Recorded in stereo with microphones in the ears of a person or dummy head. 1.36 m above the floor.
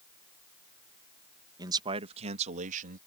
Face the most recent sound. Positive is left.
turn(degrees=-45)  # may be behind; listen again after turning